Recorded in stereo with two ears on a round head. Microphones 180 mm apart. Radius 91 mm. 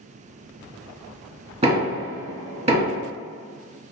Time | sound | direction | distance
1.6 | knocking | 30° right (ahead or behind) | 1.7 m